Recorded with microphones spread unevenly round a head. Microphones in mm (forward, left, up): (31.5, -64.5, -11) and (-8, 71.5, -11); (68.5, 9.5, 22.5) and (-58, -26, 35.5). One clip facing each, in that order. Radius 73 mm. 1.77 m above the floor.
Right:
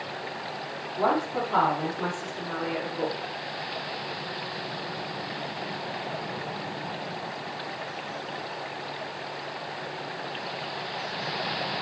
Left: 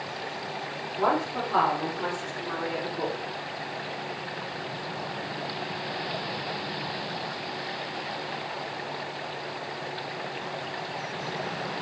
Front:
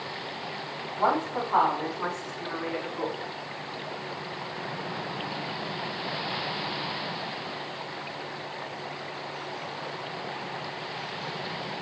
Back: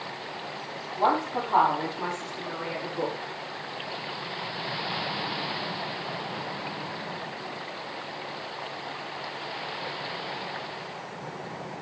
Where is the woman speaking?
100° right, 5.5 m; by 3.1 s 110° right, 4 m.